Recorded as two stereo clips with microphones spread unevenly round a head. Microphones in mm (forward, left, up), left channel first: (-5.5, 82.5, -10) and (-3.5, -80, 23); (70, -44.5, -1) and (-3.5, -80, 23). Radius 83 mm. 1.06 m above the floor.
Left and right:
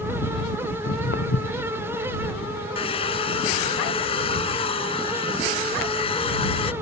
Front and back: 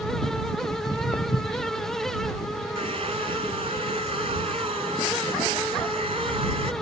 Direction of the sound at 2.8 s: 150° left.